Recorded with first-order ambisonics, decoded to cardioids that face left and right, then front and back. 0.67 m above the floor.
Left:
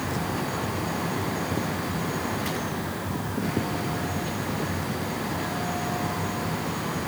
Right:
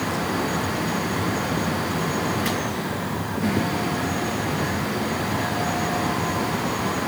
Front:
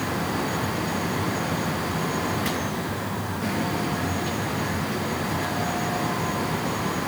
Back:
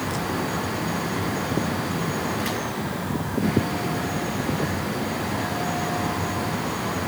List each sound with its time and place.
Only background noise.